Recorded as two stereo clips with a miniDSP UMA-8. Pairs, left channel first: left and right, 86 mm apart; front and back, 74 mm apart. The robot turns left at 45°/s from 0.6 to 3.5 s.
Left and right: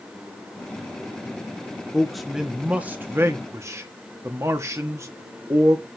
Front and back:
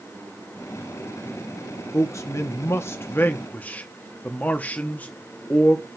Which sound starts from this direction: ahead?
A man speaking, at 1.9 s.